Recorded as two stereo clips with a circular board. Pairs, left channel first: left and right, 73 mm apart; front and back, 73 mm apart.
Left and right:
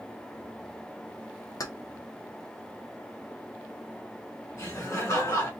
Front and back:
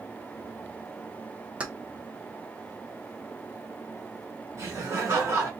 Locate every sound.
1.6 s keys jangling: 110° left, 0.6 m
4.6 s laughter: 130° left, 1.6 m